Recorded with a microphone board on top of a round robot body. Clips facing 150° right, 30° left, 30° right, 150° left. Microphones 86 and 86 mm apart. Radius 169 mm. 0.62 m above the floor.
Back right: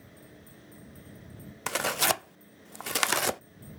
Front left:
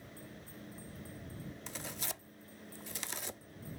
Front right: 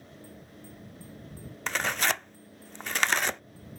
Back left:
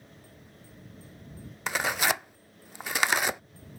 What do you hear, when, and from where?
1.7 s tearing paper: 130° right